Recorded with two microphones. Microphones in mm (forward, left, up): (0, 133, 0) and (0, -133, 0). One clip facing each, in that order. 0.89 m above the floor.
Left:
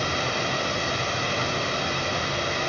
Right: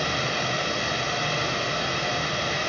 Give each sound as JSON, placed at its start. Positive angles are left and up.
{"t": 0.0, "sound": "running water", "side_deg": 60, "distance_m": 1.7}